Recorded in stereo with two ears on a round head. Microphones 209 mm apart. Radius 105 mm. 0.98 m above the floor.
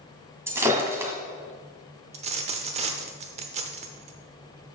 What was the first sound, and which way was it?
Breaking glass, 10° right (ahead or behind).